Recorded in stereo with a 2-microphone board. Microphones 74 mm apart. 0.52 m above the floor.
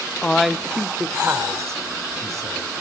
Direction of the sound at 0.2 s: 15° left (ahead or behind).